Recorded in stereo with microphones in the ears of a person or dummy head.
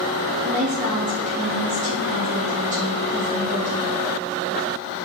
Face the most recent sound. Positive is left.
turn(degrees=-30)  # may be behind; listen again after turning